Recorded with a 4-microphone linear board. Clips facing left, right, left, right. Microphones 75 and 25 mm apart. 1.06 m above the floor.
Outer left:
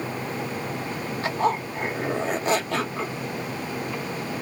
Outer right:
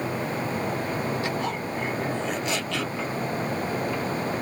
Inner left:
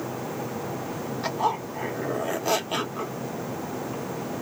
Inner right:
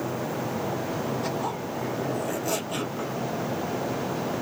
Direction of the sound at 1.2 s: 40° left (ahead or behind).